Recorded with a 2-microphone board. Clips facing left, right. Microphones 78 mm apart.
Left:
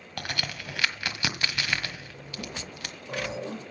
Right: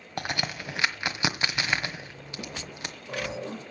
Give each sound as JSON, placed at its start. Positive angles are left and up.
{"t": 0.2, "sound": "a crack", "side_deg": -25, "distance_m": 1.4}